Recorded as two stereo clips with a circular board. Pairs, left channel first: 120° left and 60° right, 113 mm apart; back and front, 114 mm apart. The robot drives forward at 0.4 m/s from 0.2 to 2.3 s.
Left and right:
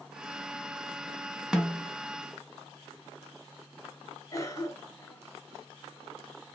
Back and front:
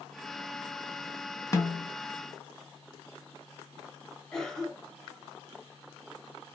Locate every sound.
1.5 s a snare drum: 140° right, 0.9 m; by 1.9 s 150° right, 1.0 m
4.3 s a cough: 100° left, 1.1 m